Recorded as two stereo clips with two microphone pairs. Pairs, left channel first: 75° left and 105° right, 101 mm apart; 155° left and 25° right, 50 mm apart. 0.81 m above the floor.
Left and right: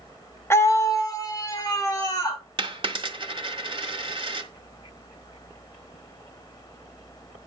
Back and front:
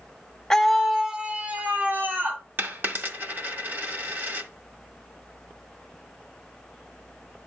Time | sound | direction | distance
0.5 | a scream | 90° left | 1.1 m
2.6 | a dropped coin | 70° right | 1.8 m